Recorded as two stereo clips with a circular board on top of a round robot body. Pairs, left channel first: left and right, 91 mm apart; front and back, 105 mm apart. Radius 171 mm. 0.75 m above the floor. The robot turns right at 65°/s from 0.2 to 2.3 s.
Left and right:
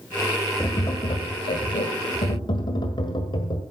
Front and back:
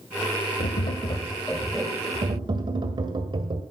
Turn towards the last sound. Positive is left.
turn(degrees=130)